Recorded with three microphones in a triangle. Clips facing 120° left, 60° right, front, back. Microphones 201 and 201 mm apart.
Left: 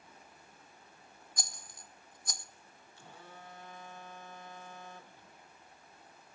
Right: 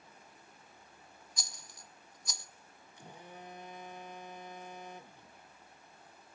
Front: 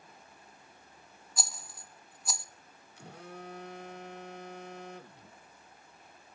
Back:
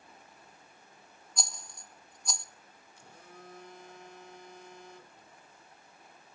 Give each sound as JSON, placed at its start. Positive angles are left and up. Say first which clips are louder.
{"t": 1.4, "sound": "a rattle", "louder": "left 5 dB, even", "azimuth_deg": 85, "distance_m": 0.5}
{"t": 3.0, "sound": "a phone buzzing", "louder": "right 3 dB, front 7 dB", "azimuth_deg": 10, "distance_m": 0.7}